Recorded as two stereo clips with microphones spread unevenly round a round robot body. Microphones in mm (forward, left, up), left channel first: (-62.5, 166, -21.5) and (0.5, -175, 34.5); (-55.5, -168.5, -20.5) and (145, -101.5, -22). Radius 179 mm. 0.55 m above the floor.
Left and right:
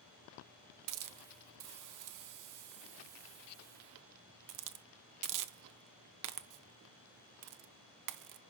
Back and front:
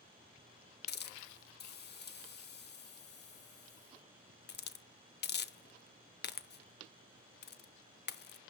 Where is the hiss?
120° right, 0.9 m.